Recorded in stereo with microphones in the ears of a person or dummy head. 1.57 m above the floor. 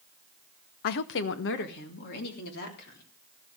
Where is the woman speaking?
55° left (ahead or behind), 0.7 m; by 3.1 s 60° left (ahead or behind), 4 m.